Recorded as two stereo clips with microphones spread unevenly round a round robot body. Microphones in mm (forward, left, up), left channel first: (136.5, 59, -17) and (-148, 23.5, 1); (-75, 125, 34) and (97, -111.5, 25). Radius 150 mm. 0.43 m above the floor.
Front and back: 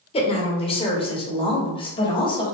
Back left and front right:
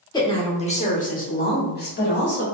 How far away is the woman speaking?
About 1.2 m.